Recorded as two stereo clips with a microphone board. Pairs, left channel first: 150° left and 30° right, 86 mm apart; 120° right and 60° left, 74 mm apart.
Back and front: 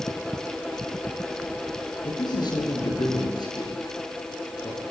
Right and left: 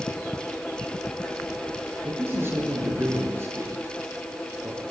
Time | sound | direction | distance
2.0 | a man speaking | 115° left | 6 m